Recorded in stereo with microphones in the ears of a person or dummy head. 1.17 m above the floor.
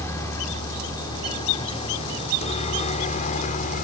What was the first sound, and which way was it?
A helicopter, 15° left (ahead or behind).